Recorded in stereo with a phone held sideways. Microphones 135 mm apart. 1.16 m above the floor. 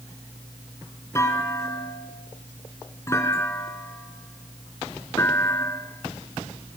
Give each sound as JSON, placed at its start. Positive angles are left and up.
{"t": 1.1, "sound": "a clunk", "side_deg": 25, "distance_m": 3.0}